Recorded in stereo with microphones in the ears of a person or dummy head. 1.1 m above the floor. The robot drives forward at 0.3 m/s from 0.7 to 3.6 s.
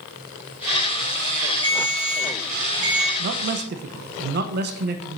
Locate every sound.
1.6 s a ringtone: 25° right (ahead or behind), 2.5 m; by 3.1 s 20° right (ahead or behind), 2.5 m
3.2 s a man speaking: 60° right (ahead or behind), 0.6 m; by 5.2 s 50° right (ahead or behind), 0.6 m